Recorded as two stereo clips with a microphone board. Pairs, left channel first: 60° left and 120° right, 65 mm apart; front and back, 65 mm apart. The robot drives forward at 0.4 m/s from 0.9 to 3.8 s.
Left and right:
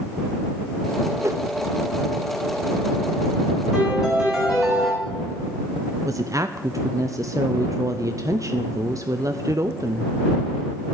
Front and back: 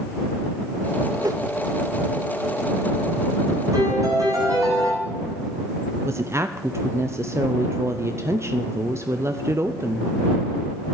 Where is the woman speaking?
140° right, 0.6 m.